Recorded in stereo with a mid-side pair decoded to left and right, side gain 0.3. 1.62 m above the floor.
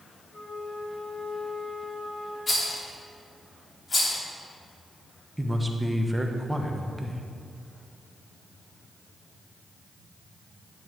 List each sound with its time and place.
0.3 s a flute: 30° left, 3 m
2.5 s a rattle: 45° left, 3 m
5.4 s a man speaking: 10° right, 1.2 m